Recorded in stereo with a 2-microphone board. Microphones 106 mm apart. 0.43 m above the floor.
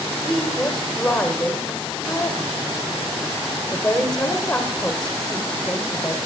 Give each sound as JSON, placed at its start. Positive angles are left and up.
{"t": 0.2, "sound": "a woman speaking", "side_deg": 5, "distance_m": 1.6}